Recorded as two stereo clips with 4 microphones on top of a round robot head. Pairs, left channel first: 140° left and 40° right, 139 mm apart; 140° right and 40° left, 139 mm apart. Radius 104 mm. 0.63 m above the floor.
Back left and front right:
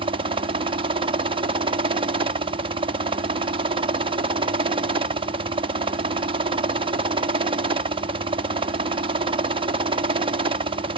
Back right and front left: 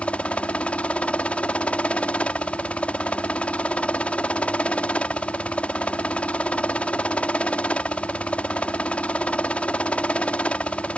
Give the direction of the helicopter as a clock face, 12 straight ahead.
2 o'clock.